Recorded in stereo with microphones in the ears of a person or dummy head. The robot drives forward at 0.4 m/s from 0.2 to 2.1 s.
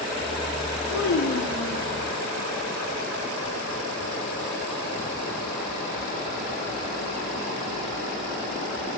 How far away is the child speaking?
About 0.9 m.